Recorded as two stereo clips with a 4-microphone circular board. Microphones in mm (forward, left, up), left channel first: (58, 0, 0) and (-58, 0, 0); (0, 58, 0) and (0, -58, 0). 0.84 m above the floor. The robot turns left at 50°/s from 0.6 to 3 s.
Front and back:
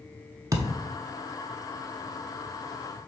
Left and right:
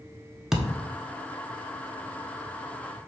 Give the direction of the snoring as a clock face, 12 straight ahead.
I don't hear snoring.